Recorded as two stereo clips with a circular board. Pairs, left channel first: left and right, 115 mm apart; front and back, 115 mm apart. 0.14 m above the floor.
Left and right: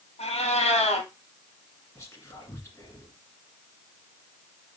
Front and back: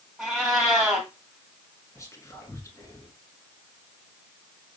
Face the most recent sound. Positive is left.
turn(degrees=45)